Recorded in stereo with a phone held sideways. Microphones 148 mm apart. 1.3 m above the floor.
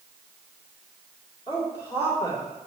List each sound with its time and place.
1.5 s a woman speaking: 35° left (ahead or behind), 2.5 m